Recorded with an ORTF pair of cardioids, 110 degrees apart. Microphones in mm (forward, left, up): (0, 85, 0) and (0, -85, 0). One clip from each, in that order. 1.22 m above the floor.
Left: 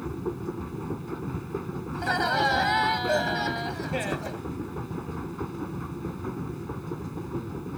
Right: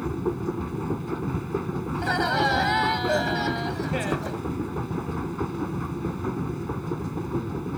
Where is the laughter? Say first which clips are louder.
Right 1 dB; 5° right.